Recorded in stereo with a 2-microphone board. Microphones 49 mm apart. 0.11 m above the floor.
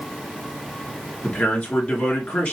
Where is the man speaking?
30° left (ahead or behind), 1.7 m.